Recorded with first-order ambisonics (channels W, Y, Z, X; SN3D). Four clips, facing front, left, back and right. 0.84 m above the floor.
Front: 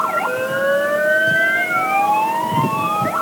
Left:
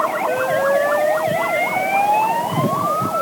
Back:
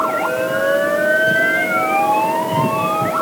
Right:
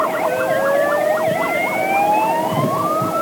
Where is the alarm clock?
No alarm clock in this recording.